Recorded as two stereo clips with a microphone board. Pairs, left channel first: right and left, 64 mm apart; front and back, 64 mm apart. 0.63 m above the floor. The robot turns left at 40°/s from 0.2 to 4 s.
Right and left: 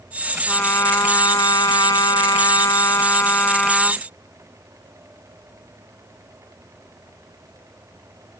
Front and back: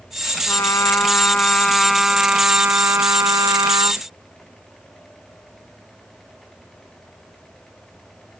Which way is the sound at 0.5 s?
30° right.